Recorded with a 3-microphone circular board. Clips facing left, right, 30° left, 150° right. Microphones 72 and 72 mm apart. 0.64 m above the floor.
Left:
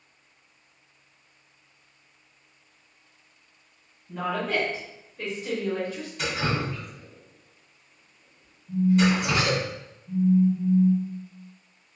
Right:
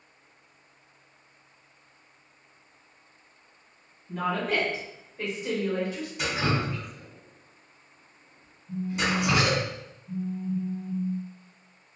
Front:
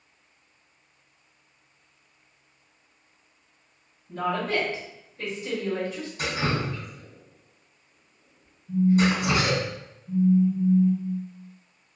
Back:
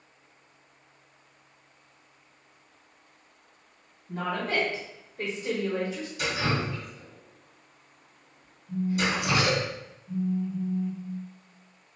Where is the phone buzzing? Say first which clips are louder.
Left 7 dB, front 7 dB; 65° left, 1.2 m.